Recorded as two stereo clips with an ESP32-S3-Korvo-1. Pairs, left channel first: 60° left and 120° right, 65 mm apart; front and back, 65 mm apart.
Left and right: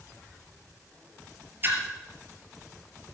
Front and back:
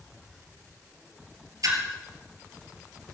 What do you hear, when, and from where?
1.6 s a splash: 170° right, 3 m